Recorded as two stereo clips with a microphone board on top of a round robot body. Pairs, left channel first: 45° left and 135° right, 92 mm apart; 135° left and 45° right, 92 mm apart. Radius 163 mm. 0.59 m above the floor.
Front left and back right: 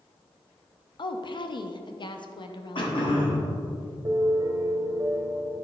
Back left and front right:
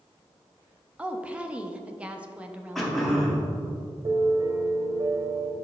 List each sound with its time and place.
1.0 s a woman speaking: 30° left, 0.8 m
2.8 s throat clearing: 50° left, 1.7 m
4.0 s a piano: 85° right, 0.6 m